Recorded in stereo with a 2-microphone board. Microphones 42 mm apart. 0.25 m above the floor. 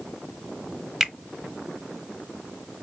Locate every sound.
1.0 s a finger snap: 10° right (ahead or behind), 1.0 m